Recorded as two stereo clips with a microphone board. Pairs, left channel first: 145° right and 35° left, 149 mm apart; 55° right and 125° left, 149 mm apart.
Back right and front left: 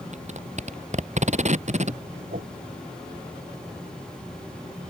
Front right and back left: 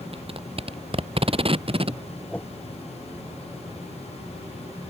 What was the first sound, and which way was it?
Tape being pulled, 75° left.